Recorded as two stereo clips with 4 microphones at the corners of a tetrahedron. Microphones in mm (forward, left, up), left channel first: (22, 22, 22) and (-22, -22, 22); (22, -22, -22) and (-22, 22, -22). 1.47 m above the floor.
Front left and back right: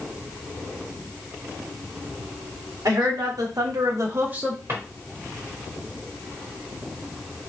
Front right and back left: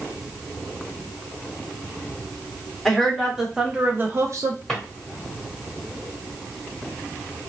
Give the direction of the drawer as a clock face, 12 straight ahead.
4 o'clock.